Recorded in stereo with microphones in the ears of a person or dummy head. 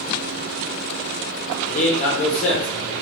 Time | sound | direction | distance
1.7 | a man speaking | 40° left (ahead or behind) | 0.7 m